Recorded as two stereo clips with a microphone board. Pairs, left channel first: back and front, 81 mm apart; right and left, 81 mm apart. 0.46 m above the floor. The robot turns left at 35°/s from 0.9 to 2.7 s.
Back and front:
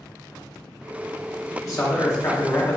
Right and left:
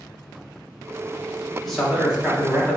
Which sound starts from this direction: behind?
A man speaking, at 1.6 s.